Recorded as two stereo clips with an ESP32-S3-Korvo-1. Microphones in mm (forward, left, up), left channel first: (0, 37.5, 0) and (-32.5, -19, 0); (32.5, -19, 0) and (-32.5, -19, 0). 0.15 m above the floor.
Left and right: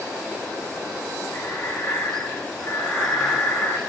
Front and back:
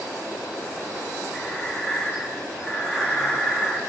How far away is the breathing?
About 1.3 m.